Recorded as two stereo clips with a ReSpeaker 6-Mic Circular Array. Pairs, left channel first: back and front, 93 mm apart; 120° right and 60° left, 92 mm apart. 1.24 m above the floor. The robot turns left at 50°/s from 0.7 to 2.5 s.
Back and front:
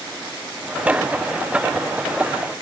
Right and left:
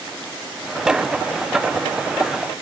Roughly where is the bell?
I don't hear a bell.